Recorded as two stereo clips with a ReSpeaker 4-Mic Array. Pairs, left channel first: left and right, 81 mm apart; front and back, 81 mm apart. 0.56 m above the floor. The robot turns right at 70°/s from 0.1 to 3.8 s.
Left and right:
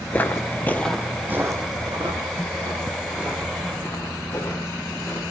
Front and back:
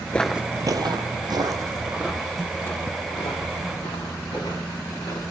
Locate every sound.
0.1 s footsteps: 40° left, 0.5 m; by 5.2 s 25° left, 6.5 m